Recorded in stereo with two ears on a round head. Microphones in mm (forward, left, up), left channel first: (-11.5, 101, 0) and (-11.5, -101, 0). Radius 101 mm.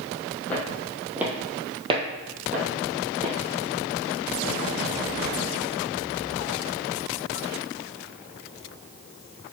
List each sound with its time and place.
0.5 s footsteps: 5° left (ahead or behind), 1.7 m; by 3.3 s 40° right (ahead or behind), 2.5 m